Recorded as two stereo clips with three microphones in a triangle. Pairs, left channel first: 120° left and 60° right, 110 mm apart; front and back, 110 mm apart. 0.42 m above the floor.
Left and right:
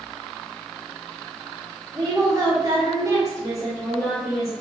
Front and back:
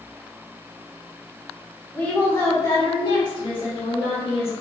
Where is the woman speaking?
75° right, 0.8 m; by 4.5 s straight ahead, 1.5 m.